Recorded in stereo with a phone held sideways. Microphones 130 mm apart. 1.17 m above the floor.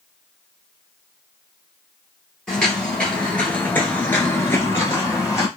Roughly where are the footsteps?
Centre.